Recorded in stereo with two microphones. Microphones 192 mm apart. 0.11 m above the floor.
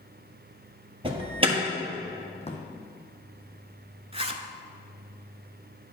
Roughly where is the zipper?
Right.